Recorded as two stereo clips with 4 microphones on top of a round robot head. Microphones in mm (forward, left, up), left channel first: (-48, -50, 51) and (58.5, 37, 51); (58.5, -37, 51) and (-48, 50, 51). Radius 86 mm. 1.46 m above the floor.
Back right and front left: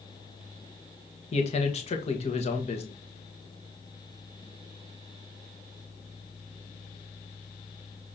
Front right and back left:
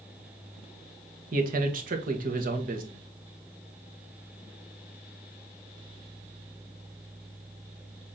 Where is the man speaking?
170° left, 1.4 m.